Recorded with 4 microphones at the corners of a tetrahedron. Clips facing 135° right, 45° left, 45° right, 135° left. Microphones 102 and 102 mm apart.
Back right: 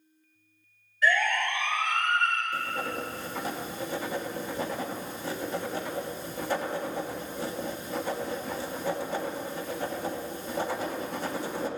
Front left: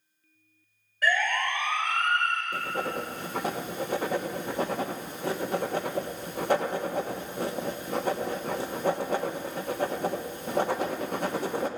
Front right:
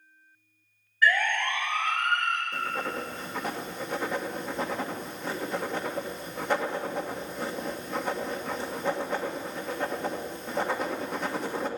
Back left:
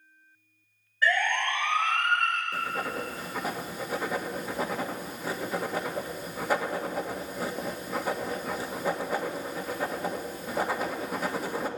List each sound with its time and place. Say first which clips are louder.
1.0 s a siren: back right 1 dB, front right 1 dB; 75° left, 4.5 m; by 2.4 s 85° left, 6 m
2.5 s writing: front left 1 dB, even; 50° left, 1.3 m